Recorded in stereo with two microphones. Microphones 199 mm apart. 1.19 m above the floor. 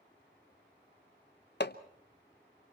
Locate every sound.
1.6 s hammering: 60° left (ahead or behind), 1.0 m